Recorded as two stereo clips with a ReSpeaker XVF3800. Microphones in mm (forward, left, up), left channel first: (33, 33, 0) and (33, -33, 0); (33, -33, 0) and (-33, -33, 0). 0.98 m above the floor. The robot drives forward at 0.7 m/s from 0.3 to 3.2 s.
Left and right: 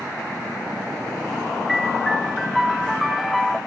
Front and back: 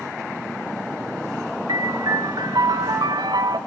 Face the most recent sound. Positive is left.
turn(degrees=180)